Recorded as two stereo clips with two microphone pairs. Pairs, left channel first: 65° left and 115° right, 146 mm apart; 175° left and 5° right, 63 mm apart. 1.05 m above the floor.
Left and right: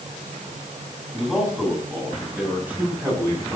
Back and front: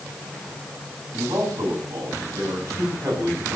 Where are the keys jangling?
No keys jangling in this recording.